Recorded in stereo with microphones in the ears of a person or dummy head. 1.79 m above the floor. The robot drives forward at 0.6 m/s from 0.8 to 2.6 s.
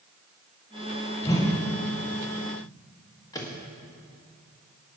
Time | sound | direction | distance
1.2 | a whoosh | 20° left (ahead or behind) | 1.4 m
3.3 | a microwave | 20° left (ahead or behind) | 1.6 m